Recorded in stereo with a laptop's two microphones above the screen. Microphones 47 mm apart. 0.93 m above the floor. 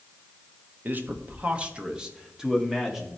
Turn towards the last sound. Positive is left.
turn(degrees=-5)  # may be behind; listen again after turning